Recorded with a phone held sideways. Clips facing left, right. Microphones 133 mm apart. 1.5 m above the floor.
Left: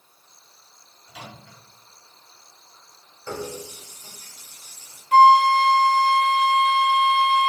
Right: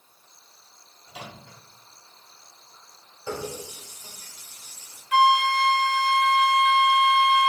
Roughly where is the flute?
Left.